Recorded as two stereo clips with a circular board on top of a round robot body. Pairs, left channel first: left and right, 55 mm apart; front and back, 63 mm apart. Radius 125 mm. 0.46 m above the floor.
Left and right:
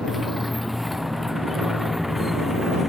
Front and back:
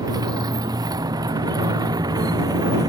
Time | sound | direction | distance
0.0 | a motorcycle | straight behind | ?